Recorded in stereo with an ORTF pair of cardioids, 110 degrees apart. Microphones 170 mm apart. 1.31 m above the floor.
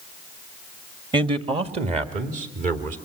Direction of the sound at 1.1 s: 25° right.